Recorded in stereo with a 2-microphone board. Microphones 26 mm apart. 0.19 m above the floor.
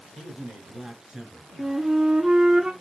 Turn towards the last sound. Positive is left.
turn(degrees=-40)  # may be behind; listen again after turning